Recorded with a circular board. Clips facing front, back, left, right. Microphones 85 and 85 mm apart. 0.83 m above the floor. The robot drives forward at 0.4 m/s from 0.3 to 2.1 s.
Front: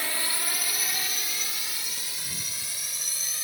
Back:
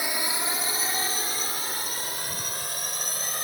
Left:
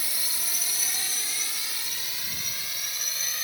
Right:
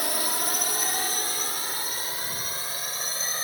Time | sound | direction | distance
0.0 | a drone | 105° right | ?